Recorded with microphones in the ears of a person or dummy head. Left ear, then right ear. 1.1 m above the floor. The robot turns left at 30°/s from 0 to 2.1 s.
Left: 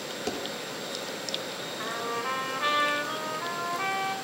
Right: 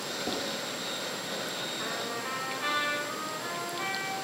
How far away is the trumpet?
About 4 m.